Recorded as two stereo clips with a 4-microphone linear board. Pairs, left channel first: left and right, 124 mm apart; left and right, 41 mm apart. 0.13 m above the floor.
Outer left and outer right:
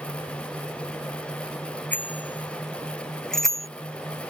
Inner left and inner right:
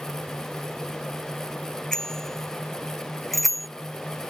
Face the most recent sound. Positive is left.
turn(degrees=0)  # may be behind; listen again after turning